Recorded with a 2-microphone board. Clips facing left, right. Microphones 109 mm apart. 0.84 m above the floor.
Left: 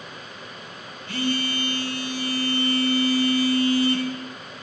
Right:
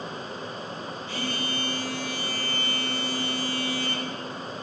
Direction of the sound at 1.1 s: 60° left (ahead or behind).